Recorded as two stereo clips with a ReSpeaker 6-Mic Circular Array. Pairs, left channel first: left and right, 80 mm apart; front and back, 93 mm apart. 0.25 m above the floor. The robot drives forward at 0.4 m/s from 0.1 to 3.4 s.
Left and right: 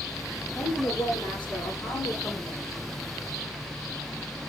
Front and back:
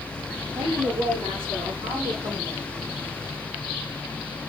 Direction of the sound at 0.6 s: 165° left.